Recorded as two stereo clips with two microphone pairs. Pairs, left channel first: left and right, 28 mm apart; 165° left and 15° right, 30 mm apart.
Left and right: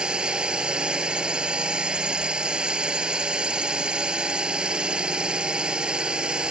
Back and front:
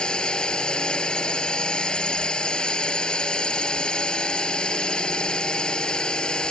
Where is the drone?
140° right.